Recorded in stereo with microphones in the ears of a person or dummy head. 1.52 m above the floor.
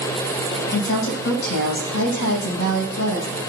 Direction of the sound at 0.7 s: 85° left.